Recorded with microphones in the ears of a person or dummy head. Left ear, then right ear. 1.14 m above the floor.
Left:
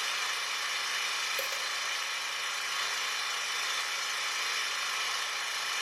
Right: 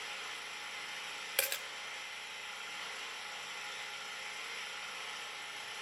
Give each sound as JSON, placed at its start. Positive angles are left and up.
{"t": 0.0, "sound": "an engine running", "side_deg": 60, "distance_m": 1.5}
{"t": 1.4, "sound": "a dropped coin", "side_deg": -35, "distance_m": 1.5}